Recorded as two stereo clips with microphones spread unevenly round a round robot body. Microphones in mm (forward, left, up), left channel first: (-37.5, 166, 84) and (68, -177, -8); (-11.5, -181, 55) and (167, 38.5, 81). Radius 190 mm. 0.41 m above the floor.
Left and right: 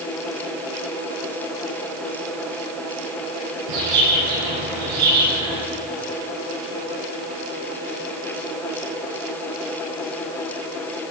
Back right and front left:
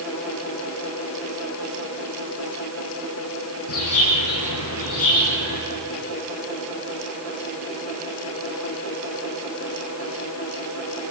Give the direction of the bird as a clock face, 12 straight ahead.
3 o'clock.